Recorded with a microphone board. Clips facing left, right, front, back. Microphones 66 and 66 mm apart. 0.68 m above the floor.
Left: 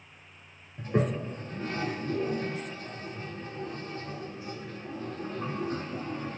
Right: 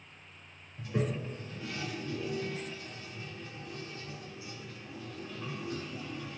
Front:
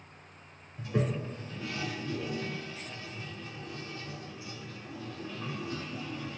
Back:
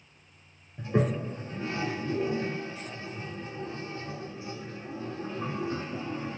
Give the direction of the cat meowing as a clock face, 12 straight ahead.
I don't hear a cat meowing.